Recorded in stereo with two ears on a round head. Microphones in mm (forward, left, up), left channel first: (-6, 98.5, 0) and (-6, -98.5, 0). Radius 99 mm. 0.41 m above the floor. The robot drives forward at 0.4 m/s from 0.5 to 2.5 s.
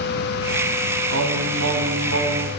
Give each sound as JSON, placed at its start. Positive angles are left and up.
{"t": 1.1, "sound": "singing", "side_deg": -70, "distance_m": 3.5}